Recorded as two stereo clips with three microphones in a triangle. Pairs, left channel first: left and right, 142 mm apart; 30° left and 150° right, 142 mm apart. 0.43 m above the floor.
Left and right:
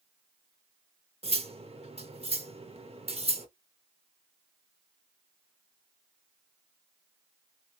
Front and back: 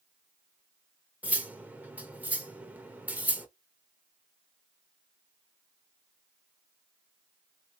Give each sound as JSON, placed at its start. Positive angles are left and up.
{"t": 1.2, "sound": "cutlery clinking", "azimuth_deg": -75, "distance_m": 0.7}